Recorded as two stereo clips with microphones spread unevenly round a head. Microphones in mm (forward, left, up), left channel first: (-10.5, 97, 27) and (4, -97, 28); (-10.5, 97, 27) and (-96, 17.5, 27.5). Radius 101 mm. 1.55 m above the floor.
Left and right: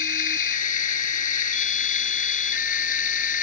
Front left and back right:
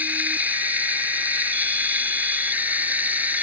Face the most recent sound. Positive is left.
turn(degrees=145)